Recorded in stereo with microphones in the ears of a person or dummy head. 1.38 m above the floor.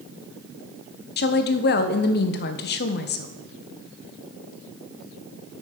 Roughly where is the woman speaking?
Left.